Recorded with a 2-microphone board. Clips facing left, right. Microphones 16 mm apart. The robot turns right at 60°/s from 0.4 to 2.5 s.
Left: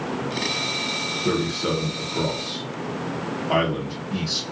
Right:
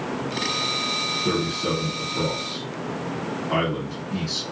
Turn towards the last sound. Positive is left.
turn(degrees=75)  # may be behind; listen again after turning